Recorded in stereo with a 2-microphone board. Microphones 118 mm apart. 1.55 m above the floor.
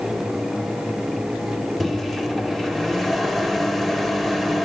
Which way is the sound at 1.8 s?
Centre (ahead or behind).